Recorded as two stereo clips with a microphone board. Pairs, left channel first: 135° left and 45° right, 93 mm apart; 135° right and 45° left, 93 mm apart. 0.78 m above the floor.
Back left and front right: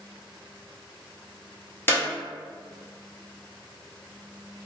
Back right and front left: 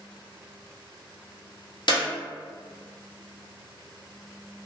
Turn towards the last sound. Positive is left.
turn(degrees=-160)